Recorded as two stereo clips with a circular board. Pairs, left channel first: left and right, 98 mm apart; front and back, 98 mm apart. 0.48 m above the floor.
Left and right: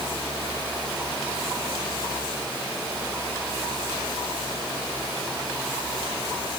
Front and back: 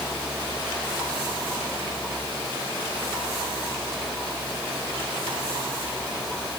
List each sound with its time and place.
Only background noise.